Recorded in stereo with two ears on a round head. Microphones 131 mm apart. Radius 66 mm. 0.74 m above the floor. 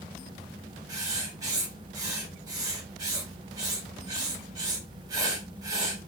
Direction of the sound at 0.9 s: 25° right (ahead or behind).